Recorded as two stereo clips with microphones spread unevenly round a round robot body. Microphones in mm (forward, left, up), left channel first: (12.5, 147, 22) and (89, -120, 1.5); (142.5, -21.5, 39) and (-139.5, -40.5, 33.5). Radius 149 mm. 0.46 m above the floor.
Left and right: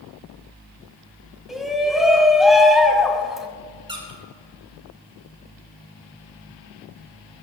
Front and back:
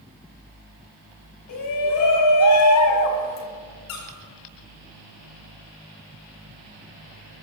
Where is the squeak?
Straight ahead, 6.5 m.